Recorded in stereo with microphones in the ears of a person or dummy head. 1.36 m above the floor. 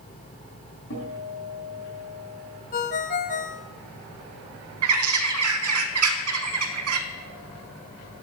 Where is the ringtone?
40° left (ahead or behind), 0.8 m.